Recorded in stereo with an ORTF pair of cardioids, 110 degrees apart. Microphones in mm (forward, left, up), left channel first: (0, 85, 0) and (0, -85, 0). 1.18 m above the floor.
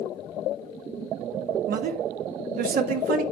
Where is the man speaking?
60° right, 1.9 m.